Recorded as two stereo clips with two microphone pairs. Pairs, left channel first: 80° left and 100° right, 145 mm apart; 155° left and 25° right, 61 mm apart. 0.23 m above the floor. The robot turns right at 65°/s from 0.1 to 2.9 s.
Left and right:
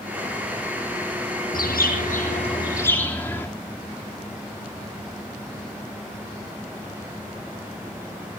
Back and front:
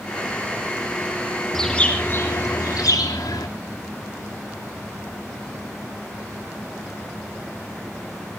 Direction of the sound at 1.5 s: 70° left.